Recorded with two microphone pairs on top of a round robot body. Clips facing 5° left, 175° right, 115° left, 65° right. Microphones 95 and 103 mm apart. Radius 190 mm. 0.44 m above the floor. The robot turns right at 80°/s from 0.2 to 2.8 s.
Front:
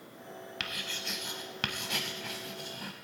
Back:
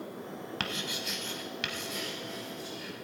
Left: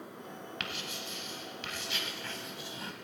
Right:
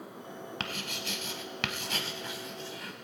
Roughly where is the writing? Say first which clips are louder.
Back 4 dB, right 3 dB; behind right.